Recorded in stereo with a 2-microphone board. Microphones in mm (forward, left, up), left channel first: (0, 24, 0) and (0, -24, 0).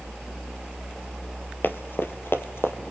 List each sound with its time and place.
1.6 s running footsteps: 45° left (ahead or behind), 2 m; by 2.7 s 55° left (ahead or behind), 2.5 m